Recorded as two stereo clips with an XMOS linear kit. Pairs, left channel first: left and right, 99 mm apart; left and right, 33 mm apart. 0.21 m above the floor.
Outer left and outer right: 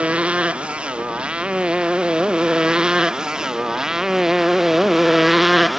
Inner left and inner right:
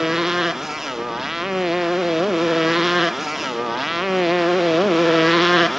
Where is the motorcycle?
10° right (ahead or behind); by 5.8 s centre (ahead or behind).